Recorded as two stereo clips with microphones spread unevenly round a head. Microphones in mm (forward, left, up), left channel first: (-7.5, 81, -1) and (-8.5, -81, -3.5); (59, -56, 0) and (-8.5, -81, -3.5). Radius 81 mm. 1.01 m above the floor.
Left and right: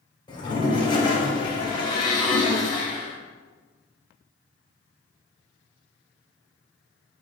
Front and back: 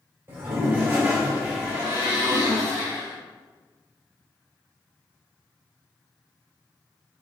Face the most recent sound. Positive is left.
turn(degrees=150)